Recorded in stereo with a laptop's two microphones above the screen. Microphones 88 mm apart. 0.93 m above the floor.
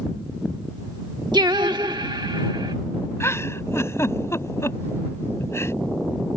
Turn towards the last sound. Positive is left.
turn(degrees=30)  # may be behind; listen again after turning